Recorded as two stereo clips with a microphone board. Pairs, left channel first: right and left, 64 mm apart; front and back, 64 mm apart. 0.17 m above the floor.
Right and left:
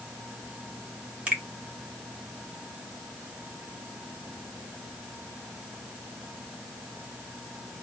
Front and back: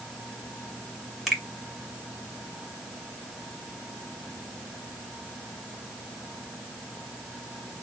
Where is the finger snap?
90° left, 1.3 m.